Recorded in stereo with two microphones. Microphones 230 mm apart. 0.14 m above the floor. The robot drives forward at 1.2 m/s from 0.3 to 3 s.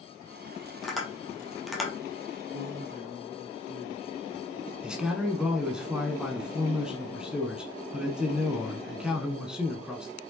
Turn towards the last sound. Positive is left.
turn(degrees=-5)  # may be behind; listen again after turning